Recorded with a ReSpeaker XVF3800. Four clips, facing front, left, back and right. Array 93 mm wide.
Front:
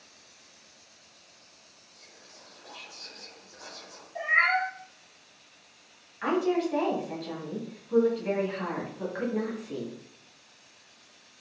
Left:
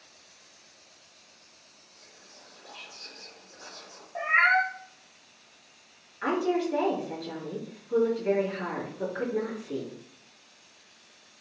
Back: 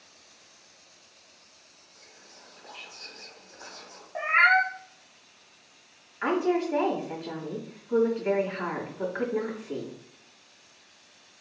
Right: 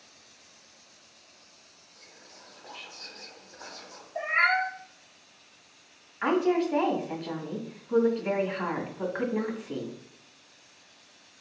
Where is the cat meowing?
155° left, 0.5 m.